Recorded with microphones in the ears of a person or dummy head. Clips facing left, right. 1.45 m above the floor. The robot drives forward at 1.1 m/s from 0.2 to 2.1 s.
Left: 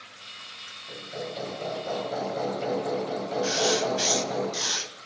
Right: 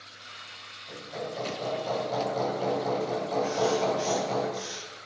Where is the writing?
70° left (ahead or behind), 0.6 m.